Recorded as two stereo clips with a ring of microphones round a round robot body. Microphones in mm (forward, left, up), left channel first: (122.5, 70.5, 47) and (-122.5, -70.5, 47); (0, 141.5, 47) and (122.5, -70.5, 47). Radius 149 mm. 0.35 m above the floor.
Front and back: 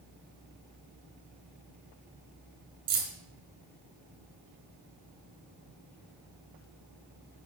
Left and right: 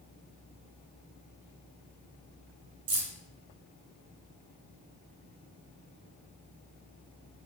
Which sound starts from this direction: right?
Keys jangling, at 2.9 s.